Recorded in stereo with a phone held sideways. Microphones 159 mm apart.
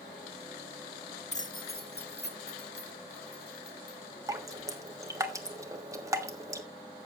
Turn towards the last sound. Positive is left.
turn(degrees=-20)  # may be behind; listen again after turning